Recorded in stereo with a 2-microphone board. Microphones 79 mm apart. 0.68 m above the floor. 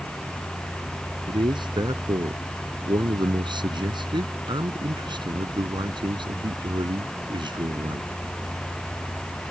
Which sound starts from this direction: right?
A man speaking, at 1.3 s.